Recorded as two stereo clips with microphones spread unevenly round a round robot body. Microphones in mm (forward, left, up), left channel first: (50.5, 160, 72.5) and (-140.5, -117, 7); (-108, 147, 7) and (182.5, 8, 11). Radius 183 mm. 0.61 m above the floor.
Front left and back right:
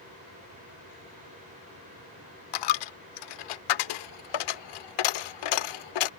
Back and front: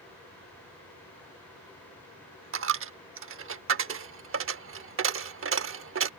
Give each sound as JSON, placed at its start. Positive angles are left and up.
{"t": 2.5, "sound": "a dropped coin", "azimuth_deg": 30}